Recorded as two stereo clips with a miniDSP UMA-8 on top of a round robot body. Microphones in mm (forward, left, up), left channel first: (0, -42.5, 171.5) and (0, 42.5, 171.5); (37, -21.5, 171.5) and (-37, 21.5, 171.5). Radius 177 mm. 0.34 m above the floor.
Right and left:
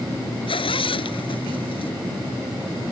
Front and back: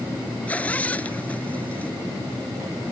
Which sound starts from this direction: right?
A zipper, at 0.5 s.